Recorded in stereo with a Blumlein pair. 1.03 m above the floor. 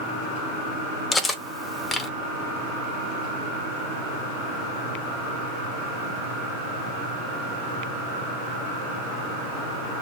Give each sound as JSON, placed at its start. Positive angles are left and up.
{"t": 1.1, "sound": "cutlery clinking", "azimuth_deg": 15, "distance_m": 0.6}